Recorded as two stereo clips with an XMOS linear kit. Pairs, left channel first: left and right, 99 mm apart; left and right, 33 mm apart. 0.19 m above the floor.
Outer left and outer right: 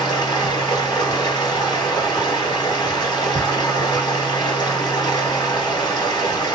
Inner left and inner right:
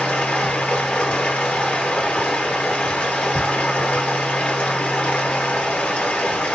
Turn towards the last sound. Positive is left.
turn(degrees=40)  # may be behind; listen again after turning